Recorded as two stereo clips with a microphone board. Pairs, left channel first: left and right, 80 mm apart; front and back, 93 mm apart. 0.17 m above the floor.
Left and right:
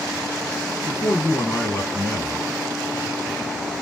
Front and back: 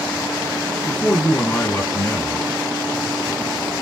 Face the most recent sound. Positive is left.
turn(degrees=50)